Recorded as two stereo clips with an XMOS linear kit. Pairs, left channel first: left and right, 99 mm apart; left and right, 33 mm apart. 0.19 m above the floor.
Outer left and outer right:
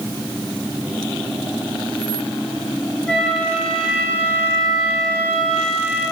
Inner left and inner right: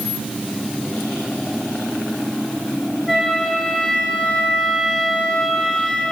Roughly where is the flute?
Centre.